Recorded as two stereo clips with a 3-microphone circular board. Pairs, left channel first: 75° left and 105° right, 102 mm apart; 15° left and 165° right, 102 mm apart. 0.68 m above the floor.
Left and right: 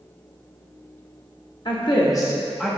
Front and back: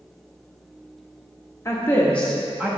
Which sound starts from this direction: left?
A woman speaking, at 1.6 s.